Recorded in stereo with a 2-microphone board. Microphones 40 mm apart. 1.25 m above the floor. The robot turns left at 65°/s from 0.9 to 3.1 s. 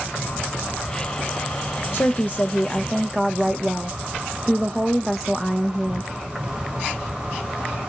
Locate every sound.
0.0 s an insect: 125° left, 1.2 m; by 7.9 s 15° right, 1.2 m
1.9 s a woman speaking: 75° left, 0.5 m; by 6.1 s straight ahead, 0.5 m